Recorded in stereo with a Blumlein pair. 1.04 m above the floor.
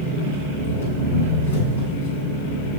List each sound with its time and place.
0.0 s an engine running: 65° left, 5.5 m